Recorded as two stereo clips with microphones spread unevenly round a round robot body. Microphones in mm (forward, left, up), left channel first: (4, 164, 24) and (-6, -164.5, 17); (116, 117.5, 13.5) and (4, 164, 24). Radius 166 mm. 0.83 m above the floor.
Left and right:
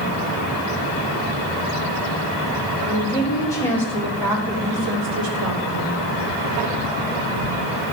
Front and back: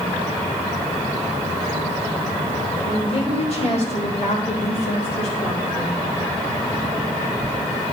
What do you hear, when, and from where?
2.9 s a woman speaking: 15° left, 3.5 m; by 6.0 s 75° right, 2 m